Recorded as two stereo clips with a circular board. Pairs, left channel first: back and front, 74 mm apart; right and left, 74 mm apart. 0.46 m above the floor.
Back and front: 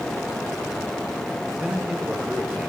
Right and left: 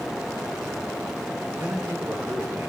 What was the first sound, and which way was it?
A man speaking, 65° left.